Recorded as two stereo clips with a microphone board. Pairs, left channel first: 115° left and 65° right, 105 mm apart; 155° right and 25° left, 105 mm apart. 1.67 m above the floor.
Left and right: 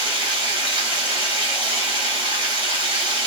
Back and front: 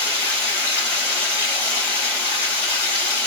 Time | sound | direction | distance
0.0 | running water | 40° right | 2.5 m